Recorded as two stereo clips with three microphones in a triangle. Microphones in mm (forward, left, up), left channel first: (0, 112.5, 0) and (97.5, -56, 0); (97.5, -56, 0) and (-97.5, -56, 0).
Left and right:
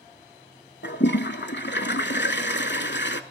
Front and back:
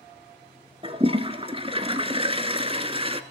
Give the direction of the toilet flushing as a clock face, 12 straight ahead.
8 o'clock.